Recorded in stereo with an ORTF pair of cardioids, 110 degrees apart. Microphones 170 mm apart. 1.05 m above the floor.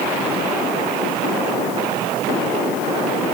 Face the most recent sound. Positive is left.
No sound to turn to.